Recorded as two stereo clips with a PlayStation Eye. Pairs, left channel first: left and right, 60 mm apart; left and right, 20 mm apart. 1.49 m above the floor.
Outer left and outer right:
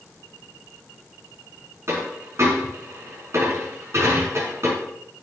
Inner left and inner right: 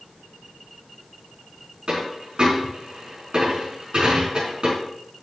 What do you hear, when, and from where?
1.9 s a dropped coin: 50° right (ahead or behind), 4.5 m